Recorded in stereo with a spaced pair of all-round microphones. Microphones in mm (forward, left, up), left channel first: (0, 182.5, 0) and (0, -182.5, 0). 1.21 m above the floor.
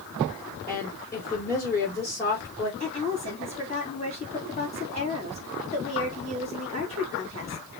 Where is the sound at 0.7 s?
5° left (ahead or behind), 3 m.